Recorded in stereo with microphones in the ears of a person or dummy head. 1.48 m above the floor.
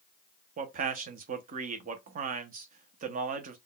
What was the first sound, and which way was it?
A man speaking, 40° right (ahead or behind).